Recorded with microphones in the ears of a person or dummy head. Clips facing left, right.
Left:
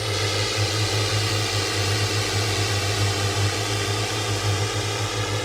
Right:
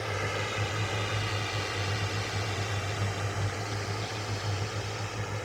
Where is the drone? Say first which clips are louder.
Left 7 dB; 55° left (ahead or behind); by 5.4 s 75° left (ahead or behind).